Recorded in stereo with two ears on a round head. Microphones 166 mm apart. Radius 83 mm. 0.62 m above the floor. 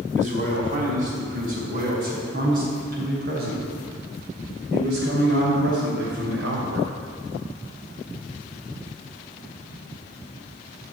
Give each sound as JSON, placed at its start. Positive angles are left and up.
{"t": 0.1, "sound": "a man speaking", "side_deg": -40, "distance_m": 5.0}